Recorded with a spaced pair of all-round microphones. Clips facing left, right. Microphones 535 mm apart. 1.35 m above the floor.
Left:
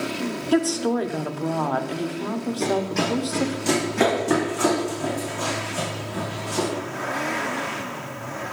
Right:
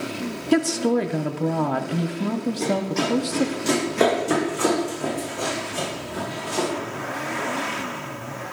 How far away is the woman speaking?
About 0.6 m.